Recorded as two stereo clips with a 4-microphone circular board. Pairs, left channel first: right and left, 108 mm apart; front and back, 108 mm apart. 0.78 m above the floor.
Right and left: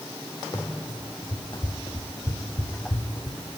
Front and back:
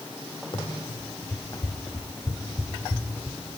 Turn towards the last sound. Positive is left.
turn(degrees=-75)